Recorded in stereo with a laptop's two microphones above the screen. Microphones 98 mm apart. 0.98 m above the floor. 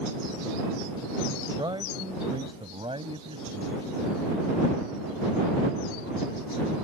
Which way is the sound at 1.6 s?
50° right (ahead or behind).